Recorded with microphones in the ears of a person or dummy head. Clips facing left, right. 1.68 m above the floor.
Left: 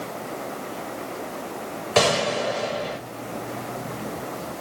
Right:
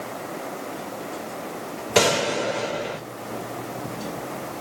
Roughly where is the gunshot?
Right.